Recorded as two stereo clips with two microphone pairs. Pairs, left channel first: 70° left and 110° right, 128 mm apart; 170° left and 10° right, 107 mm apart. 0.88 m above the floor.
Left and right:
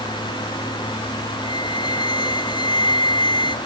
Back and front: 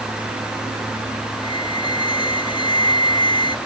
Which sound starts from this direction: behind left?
A flute, at 1.4 s.